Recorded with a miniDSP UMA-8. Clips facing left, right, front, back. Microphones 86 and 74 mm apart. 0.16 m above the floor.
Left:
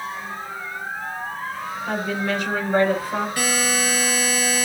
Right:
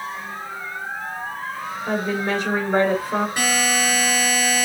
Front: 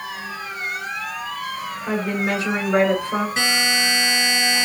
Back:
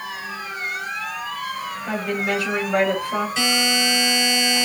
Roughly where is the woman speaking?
Ahead right.